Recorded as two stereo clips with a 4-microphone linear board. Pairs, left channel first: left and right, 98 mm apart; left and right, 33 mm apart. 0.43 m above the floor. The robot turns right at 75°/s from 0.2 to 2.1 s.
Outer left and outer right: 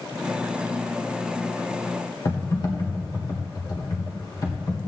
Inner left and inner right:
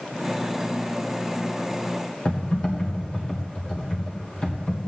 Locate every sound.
2.2 s typing on a keyboard: 40° left (ahead or behind), 1.5 m